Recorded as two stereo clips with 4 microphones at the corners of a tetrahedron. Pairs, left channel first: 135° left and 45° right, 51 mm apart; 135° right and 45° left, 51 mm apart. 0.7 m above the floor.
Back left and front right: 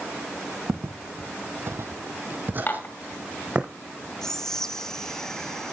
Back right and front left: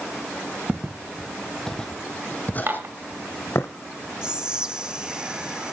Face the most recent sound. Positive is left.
turn(degrees=80)